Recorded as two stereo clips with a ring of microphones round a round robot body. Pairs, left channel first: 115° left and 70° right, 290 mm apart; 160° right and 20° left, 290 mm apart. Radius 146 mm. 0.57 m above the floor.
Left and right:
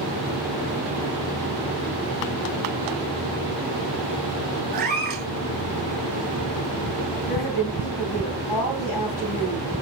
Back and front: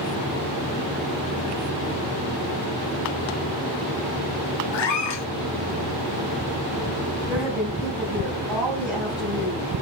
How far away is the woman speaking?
About 4 m.